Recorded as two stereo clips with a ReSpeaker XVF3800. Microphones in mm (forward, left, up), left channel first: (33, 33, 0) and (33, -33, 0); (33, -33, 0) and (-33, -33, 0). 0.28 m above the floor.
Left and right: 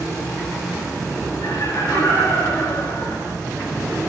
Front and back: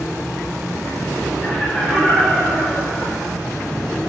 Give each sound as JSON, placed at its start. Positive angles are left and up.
{"t": 1.4, "sound": "laughter", "azimuth_deg": 75, "distance_m": 4.0}